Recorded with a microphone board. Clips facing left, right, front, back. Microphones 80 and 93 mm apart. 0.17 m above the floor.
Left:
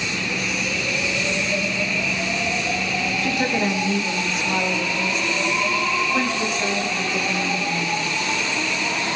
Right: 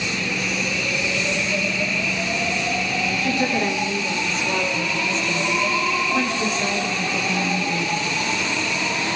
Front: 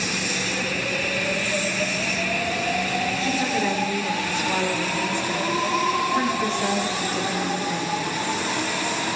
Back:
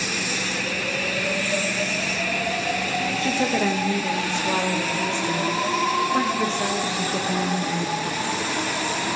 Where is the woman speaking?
160° left, 8.5 m; by 8.1 s 170° left, 13.5 m.